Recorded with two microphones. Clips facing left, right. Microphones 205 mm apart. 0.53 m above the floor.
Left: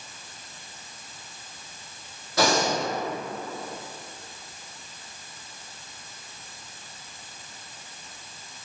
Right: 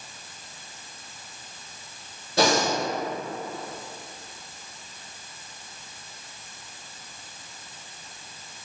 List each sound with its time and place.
2.4 s breathing: 30° right (ahead or behind), 1.7 m